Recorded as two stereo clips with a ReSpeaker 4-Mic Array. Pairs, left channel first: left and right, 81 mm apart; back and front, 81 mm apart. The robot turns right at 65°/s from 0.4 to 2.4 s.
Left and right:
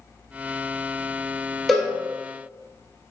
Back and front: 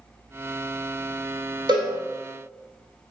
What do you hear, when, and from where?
1.7 s a cowbell: straight ahead, 1.0 m; by 1.9 s 15° left, 1.0 m